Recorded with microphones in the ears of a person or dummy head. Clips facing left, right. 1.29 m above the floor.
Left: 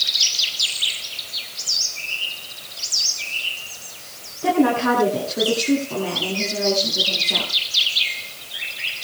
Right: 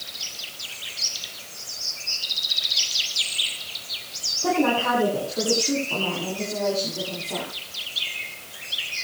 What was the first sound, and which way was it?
A woman speaking, 35° left (ahead or behind).